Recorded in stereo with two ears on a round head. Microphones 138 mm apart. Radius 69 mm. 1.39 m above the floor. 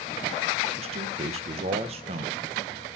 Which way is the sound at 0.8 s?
40° right (ahead or behind).